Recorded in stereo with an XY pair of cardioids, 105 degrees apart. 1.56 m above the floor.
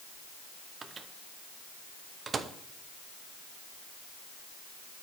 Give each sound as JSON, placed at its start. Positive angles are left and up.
{"t": 0.8, "sound": "a microwave", "azimuth_deg": -35, "distance_m": 0.8}